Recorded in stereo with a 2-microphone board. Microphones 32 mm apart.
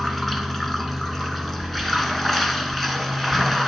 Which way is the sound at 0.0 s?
5° left (ahead or behind).